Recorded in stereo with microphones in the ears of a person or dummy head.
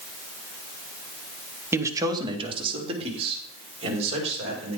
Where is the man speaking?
10° right (ahead or behind), 1.0 m; by 4.8 s 35° right (ahead or behind), 5 m.